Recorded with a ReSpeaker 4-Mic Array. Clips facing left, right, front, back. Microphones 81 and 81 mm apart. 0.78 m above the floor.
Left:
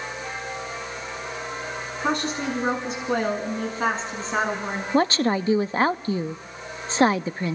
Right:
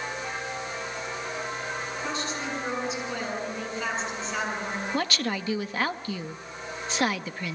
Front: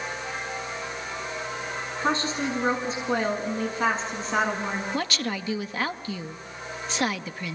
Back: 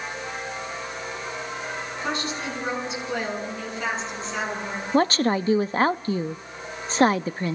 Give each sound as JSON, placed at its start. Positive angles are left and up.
{"t": 2.0, "sound": "a woman speaking", "azimuth_deg": 60, "distance_m": 7.5}
{"t": 4.9, "sound": "a woman speaking", "azimuth_deg": 140, "distance_m": 0.6}